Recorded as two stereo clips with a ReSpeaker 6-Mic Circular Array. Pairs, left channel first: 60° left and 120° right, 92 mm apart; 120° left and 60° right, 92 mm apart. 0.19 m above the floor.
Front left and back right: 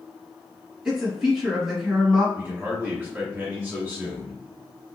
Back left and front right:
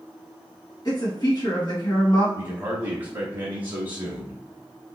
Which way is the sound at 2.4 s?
85° right.